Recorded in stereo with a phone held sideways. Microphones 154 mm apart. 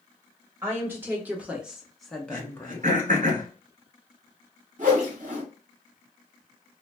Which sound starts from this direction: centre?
A woman speaking, at 0.6 s.